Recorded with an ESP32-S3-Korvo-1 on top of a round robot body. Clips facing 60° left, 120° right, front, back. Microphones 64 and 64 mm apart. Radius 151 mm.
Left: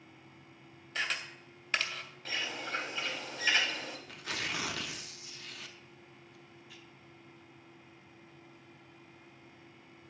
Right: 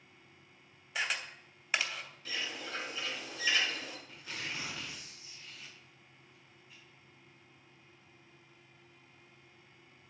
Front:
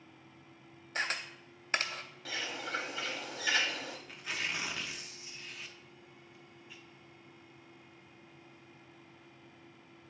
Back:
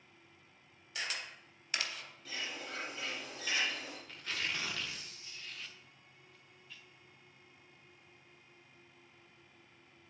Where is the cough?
No cough in this recording.